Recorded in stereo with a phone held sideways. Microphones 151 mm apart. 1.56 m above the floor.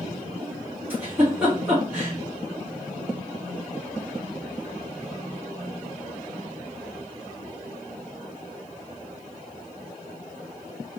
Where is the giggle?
10° right (ahead or behind), 3 m.